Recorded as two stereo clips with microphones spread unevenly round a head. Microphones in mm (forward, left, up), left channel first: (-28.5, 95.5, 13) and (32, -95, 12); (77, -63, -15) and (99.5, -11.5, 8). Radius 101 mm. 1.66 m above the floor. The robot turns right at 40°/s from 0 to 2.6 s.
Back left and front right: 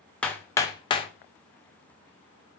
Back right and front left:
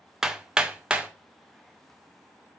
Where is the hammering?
25° left, 0.6 m; by 1.1 s 60° left, 0.6 m.